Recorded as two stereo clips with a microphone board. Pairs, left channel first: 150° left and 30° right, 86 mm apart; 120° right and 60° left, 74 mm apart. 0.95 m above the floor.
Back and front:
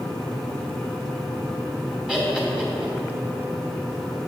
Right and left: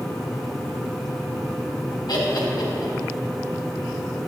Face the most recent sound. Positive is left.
turn(degrees=-110)